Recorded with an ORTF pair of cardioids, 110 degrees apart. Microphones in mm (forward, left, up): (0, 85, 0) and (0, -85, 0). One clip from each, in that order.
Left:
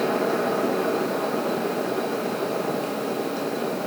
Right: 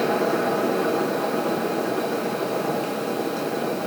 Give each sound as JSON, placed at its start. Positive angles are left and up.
{"t": 0.0, "sound": "a fan", "azimuth_deg": -5, "distance_m": 1.2}